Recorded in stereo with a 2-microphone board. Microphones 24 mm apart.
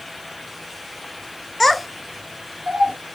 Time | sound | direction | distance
1.6 | a child speaking | 15° left (ahead or behind) | 0.8 m